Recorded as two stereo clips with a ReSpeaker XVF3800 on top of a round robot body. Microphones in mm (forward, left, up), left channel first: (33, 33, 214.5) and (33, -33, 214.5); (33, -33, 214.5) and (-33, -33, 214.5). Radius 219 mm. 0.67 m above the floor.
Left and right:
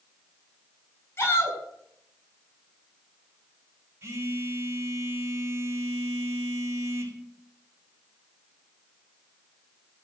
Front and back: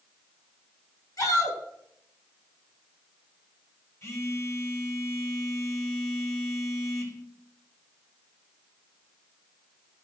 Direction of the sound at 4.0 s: 45° right.